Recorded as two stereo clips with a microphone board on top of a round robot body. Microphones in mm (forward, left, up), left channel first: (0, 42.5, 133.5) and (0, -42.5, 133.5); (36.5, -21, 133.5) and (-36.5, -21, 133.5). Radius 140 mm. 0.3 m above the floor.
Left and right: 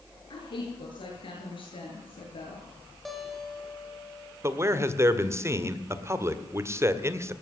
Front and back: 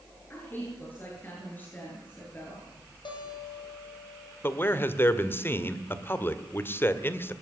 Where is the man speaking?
45° right, 1.9 m.